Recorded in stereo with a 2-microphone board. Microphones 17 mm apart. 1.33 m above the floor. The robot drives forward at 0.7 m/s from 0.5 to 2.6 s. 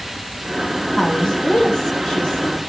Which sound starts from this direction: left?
A woman speaking, at 1.0 s.